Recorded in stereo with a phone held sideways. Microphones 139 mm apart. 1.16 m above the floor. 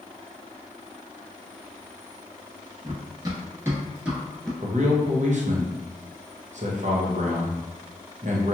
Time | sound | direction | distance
2.8 | running footsteps | 30° right (ahead or behind) | 1.4 m
4.6 | a man speaking | 55° right (ahead or behind) | 0.7 m